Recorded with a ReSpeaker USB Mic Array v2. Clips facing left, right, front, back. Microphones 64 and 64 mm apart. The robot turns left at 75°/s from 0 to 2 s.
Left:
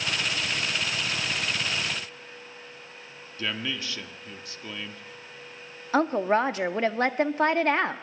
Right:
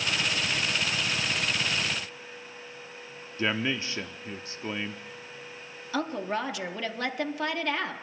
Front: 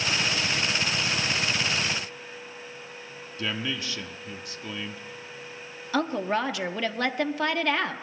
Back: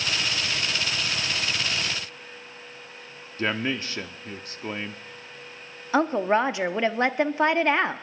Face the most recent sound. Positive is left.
turn(degrees=125)